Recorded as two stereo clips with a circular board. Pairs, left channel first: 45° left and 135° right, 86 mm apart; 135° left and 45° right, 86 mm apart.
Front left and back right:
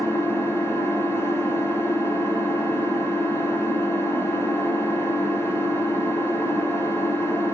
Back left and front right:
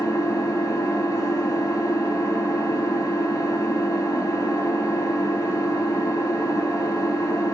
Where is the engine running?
100° left, 1.2 m.